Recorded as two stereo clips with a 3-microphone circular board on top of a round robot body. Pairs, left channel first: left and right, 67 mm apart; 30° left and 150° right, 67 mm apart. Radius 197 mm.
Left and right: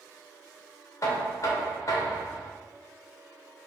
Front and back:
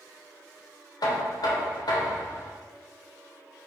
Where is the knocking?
45° left, 0.8 m.